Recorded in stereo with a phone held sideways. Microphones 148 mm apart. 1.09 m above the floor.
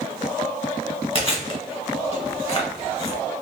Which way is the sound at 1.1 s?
35° left (ahead or behind).